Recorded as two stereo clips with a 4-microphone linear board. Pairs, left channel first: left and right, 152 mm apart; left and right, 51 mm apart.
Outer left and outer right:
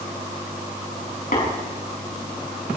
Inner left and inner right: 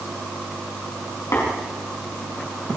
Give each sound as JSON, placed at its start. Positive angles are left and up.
{"t": 1.3, "sound": "tapping", "side_deg": 85, "distance_m": 6.0}